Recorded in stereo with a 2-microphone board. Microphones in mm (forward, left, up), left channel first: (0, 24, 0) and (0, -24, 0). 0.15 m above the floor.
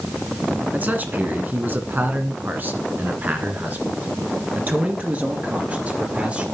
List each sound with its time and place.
0.7 s a man speaking: 35° right (ahead or behind), 1.9 m; by 6.5 s 30° right (ahead or behind), 3.5 m